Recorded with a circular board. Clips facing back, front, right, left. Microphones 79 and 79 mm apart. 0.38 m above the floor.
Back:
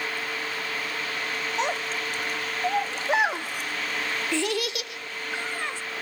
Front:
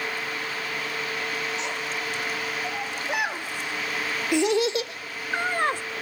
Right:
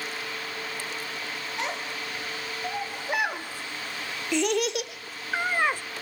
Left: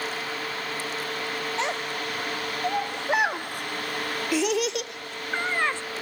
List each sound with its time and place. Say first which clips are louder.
1.6 s a child speaking: back 3 dB, left 2 dB; 150° left, 1.9 m; by 5.8 s 15° right, 1.5 m